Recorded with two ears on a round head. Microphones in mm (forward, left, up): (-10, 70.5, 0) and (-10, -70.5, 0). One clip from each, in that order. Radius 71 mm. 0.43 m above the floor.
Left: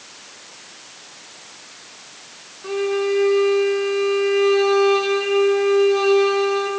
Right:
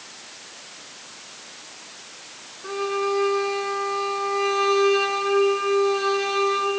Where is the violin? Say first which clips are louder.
Left 3 dB; centre (ahead or behind), 3 m.